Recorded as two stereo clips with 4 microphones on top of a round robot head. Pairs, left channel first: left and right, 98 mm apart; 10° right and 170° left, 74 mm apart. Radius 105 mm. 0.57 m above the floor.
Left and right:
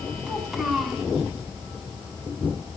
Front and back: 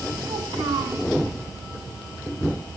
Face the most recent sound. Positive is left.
turn(degrees=-175)